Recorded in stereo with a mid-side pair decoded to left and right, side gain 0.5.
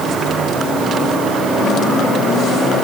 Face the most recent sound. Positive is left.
No sound to turn to.